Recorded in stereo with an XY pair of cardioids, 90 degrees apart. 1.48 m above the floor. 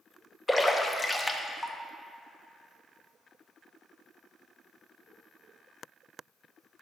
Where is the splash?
20° left, 0.6 m.